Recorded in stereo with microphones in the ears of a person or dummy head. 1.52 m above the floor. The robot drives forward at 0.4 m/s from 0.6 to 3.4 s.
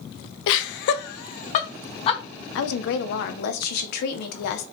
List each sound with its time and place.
0.5 s laughter: 70° left (ahead or behind), 0.5 m; by 2.2 s 30° left (ahead or behind), 1.0 m
2.5 s a woman speaking: 70° left (ahead or behind), 0.7 m; by 4.7 s 60° left (ahead or behind), 0.7 m